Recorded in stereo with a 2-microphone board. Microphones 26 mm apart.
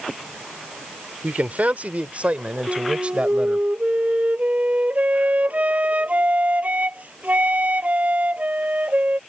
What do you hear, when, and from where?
1.2 s a man speaking: 75° right (ahead or behind); by 3.7 s 45° right (ahead or behind)
2.7 s a flute: 70° right (ahead or behind)